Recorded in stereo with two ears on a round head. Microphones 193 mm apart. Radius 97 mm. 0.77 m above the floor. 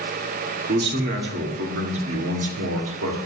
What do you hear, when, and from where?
0.7 s a man speaking: 40° right (ahead or behind), 1.7 m; by 3.2 s 65° right (ahead or behind), 2 m